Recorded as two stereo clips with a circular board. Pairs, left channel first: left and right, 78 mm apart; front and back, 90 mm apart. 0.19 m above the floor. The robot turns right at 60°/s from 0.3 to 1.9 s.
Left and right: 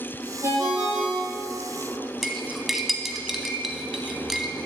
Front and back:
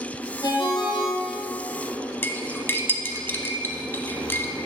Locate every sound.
0.4 s a ringtone: 40° right, 2.5 m; by 1.6 s 30° left, 2.5 m
2.2 s cutlery clinking: 5° right, 0.9 m